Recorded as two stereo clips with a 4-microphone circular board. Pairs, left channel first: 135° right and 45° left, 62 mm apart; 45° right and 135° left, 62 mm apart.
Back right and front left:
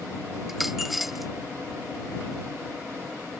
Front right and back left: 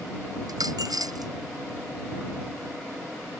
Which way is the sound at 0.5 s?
135° left.